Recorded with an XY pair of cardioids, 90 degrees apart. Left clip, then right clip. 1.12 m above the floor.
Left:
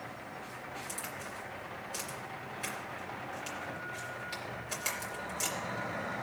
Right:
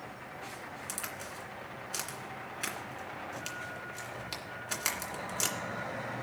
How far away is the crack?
About 2.5 m.